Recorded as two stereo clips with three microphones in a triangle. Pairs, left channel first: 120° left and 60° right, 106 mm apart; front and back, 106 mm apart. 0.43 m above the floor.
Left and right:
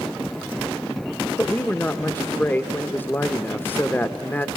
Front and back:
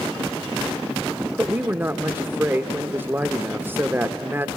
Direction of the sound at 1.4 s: 155° left.